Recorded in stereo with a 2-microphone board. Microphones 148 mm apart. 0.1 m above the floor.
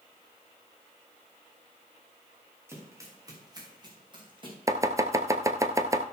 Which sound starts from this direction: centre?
Running footsteps, at 2.7 s.